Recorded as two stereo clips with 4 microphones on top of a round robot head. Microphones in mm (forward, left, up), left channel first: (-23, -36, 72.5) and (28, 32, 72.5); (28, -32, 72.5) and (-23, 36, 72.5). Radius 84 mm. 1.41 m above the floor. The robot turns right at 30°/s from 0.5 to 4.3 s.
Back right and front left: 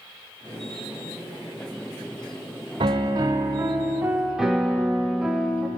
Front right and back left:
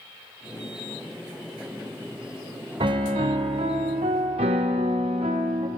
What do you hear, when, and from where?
2.8 s a piano: 90° left, 0.5 m; by 5.7 s 135° left, 0.5 m